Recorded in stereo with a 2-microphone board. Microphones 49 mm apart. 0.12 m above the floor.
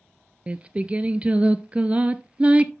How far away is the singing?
About 0.6 m.